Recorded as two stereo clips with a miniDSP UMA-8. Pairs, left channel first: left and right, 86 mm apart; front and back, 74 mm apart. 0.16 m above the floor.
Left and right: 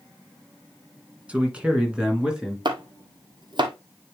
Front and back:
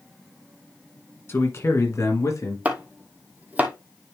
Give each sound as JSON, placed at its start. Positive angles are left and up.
{"t": 1.3, "sound": "a man speaking", "azimuth_deg": -25, "distance_m": 1.9}
{"t": 2.6, "sound": "chopping", "azimuth_deg": -110, "distance_m": 1.2}